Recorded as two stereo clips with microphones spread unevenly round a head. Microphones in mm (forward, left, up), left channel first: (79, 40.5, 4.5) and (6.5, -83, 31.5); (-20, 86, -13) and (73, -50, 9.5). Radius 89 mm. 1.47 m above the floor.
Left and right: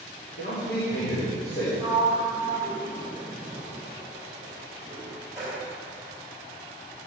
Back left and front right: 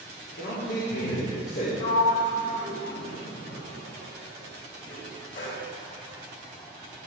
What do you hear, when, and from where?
0.4 s a man speaking: 95° left, 3 m; by 1.7 s 100° left, 4 m
1.8 s a sliding door: 160° left, 2.5 m